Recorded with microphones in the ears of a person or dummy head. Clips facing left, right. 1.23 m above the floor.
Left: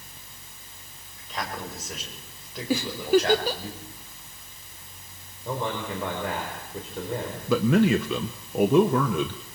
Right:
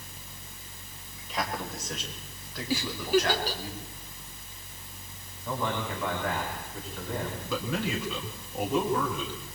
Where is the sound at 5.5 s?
30° left (ahead or behind), 4.5 m.